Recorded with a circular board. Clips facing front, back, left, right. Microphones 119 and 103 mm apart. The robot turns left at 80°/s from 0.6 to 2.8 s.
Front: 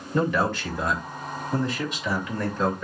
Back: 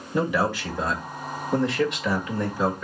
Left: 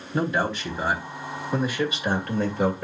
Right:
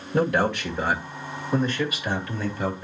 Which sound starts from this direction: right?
A man speaking, at 0.1 s.